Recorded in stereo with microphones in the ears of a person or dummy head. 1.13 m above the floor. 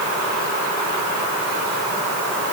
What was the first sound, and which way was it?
Only background noise.